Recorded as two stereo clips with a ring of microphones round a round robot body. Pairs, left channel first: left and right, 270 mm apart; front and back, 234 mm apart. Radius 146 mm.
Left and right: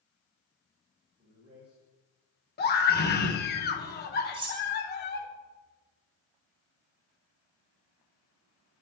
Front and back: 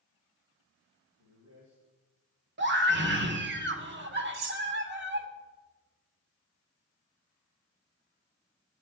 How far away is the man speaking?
About 2.5 m.